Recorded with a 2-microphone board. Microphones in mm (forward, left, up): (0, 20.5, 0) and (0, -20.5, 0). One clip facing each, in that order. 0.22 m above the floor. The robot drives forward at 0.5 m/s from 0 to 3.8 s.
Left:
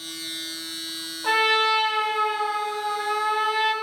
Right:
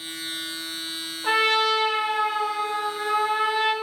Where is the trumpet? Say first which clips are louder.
Left 1 dB; 10° left (ahead or behind), 1.4 m.